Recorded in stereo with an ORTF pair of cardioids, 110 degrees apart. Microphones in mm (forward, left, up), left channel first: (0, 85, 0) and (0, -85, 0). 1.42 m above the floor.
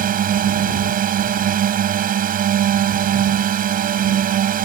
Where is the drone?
55° right.